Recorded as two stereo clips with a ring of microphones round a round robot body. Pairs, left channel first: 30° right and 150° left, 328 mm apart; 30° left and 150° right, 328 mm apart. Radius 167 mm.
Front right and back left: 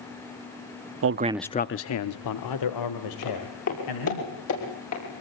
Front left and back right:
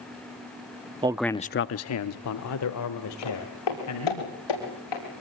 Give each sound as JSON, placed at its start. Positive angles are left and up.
{"t": 1.0, "sound": "a man speaking", "azimuth_deg": 140, "distance_m": 0.7}
{"t": 3.2, "sound": "footsteps", "azimuth_deg": 20, "distance_m": 9.0}